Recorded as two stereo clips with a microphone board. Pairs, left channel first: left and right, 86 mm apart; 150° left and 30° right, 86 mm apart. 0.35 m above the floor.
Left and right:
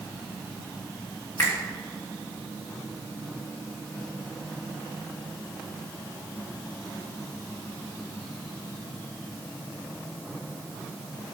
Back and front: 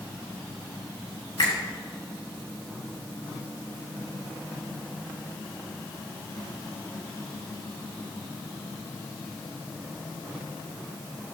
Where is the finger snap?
150° left, 3.5 m.